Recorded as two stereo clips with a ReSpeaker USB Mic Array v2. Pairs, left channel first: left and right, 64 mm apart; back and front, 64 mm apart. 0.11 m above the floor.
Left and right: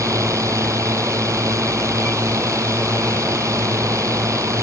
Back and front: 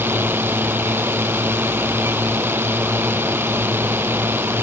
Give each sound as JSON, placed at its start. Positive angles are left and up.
{"t": 0.0, "sound": "a drone", "azimuth_deg": -55}